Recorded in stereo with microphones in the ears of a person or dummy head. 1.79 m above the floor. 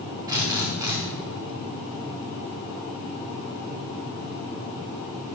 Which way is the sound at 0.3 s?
20° right (ahead or behind).